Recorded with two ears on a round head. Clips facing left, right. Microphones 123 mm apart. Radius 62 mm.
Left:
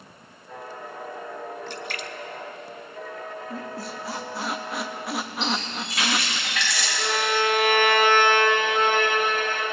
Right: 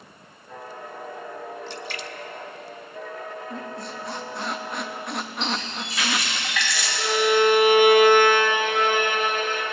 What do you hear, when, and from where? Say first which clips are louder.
1.7 s a splash: even; 45° left (ahead or behind), 0.6 m
3.5 s a squeak: even; 5° left (ahead or behind), 0.6 m
5.4 s a running tap: even; 70° right (ahead or behind), 4 m
7.0 s a violin: right 6 dB; 10° right (ahead or behind), 2.5 m